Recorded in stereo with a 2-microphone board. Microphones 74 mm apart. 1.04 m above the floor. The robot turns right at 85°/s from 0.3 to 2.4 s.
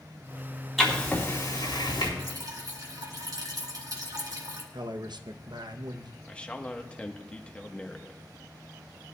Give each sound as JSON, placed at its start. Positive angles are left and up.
{"t": 0.8, "sound": "writing", "side_deg": 5, "distance_m": 3.5}
{"t": 2.2, "sound": "dripping", "side_deg": -65, "distance_m": 1.9}
{"t": 4.7, "sound": "a man speaking", "side_deg": -70, "distance_m": 0.7}
{"t": 6.3, "sound": "a man speaking", "side_deg": 15, "distance_m": 1.1}